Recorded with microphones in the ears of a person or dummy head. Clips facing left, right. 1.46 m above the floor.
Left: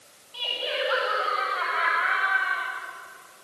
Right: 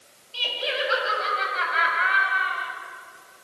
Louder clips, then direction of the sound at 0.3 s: Right 1 dB; 35° right (ahead or behind).